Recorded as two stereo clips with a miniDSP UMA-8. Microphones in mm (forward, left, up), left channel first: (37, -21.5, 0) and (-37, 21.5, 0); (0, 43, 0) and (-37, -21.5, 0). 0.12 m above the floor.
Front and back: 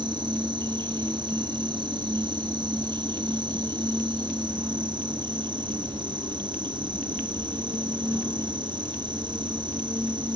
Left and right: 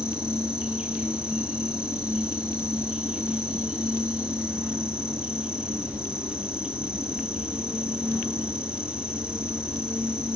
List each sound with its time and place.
0.0 s an insect: 165° left, 5 m